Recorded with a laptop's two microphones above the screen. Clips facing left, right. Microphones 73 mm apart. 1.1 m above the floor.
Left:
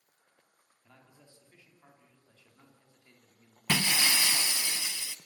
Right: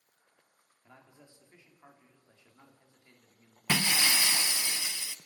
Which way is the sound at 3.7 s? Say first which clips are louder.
Even; 15° right (ahead or behind).